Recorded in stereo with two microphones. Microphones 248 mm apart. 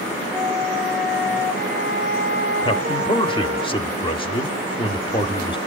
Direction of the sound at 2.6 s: 20° left (ahead or behind).